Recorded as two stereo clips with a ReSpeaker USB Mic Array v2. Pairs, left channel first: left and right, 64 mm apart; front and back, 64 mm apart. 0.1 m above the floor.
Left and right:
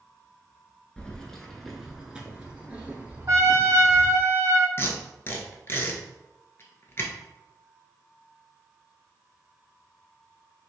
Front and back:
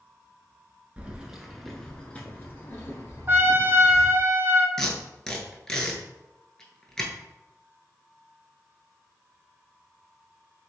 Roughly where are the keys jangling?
Behind left.